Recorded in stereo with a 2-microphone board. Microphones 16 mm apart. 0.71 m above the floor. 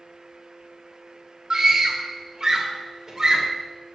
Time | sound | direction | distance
1.5 | a scream | 25° right (ahead or behind) | 1.4 m